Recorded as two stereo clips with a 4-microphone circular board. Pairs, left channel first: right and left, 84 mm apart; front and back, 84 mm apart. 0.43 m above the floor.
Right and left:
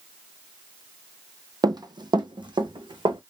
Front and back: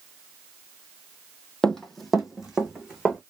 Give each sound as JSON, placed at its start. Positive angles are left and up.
{"t": 1.6, "sound": "running footsteps", "azimuth_deg": 80, "distance_m": 0.6}